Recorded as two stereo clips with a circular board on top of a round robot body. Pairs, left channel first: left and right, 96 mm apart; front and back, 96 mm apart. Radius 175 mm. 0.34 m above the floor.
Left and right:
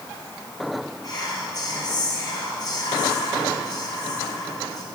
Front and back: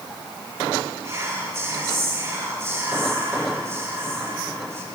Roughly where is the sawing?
No sawing in this recording.